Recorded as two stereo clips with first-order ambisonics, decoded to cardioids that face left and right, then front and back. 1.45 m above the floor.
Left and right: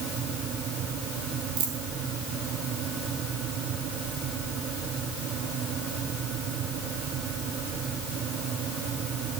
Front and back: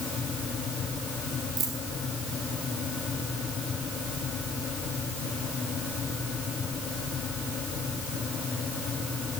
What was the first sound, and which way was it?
A dropped coin, 125° right.